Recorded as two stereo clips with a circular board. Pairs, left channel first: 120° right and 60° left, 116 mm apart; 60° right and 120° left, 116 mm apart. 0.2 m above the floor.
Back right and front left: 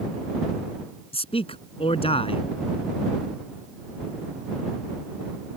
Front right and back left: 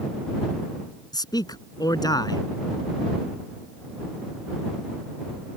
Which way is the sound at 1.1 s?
105° right.